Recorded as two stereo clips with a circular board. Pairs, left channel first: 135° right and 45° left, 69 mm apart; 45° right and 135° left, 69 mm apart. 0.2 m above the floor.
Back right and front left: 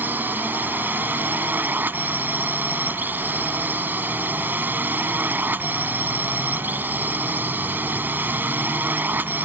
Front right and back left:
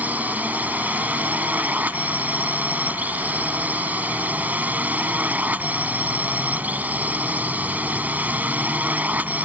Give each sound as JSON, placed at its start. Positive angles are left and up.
{"t": 0.0, "sound": "a drone", "azimuth_deg": 85}